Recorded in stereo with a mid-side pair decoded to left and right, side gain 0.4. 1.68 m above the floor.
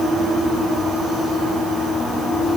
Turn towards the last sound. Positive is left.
No sound to turn to.